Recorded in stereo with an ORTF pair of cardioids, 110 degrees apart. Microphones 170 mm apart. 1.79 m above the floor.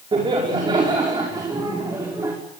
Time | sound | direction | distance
0.1 | laughter | 30° right | 5.5 m